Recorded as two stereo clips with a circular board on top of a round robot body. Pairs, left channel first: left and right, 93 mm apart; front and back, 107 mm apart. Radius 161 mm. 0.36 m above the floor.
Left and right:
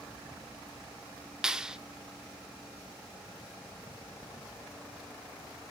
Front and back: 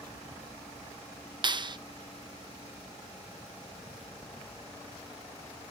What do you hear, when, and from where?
1.4 s a clap: 170° right, 1.1 m